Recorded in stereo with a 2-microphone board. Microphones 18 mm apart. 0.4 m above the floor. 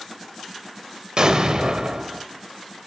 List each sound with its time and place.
1.2 s an explosion: 45° right (ahead or behind), 1.5 m